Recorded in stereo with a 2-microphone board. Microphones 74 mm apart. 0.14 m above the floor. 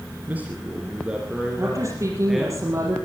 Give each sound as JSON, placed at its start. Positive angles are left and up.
{"t": 0.3, "sound": "a man speaking", "side_deg": -20, "distance_m": 2.0}
{"t": 1.6, "sound": "a woman speaking", "side_deg": -40, "distance_m": 4.5}